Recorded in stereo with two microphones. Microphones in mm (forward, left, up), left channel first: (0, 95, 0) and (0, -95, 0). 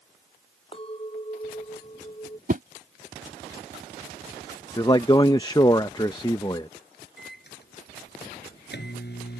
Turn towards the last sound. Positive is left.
turn(degrees=65)  # may be behind; listen again after turning